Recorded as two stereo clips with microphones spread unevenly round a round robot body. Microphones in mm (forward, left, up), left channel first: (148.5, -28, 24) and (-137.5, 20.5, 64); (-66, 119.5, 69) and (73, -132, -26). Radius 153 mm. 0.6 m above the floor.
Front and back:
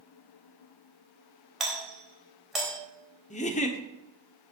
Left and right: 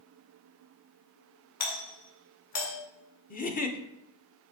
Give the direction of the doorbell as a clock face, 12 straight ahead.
9 o'clock.